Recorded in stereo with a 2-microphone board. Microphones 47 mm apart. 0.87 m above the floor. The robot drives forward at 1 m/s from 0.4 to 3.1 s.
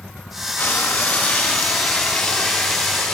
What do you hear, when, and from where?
0.6 s frying: 45° left (ahead or behind), 1.4 m; by 3.1 s 20° left (ahead or behind), 3.5 m